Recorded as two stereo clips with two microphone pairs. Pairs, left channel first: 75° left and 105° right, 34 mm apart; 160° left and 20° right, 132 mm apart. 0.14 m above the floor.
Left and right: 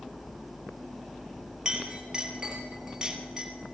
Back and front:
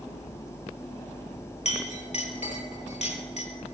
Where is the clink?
175° right, 2.5 m.